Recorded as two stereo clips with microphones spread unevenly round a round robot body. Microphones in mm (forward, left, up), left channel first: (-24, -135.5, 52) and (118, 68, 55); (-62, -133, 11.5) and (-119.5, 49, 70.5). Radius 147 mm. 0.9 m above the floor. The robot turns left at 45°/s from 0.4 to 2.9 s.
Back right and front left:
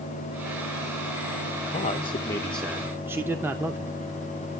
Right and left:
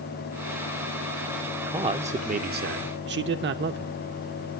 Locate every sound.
1.7 s a man speaking: 170° right, 0.6 m; by 3.9 s 135° left, 0.6 m